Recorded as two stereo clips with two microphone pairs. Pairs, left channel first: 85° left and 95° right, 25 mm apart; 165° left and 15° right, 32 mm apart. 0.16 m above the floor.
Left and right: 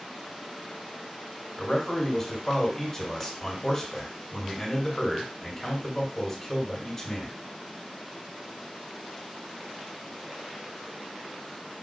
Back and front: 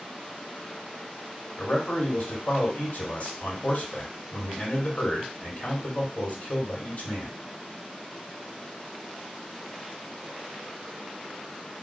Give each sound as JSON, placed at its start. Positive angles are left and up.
{"t": 1.6, "sound": "a man speaking", "azimuth_deg": 160, "distance_m": 1.7}